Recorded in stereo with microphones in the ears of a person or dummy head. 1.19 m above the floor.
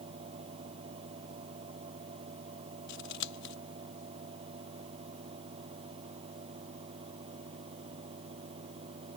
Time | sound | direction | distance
0.0 | a fan | 30° right (ahead or behind) | ?
2.9 | scissors | 65° left (ahead or behind) | ?